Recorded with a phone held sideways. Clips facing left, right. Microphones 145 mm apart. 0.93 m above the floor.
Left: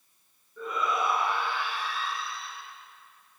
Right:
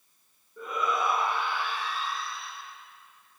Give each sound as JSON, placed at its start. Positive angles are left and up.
{"t": 0.6, "sound": "a shout", "side_deg": -15, "distance_m": 10.0}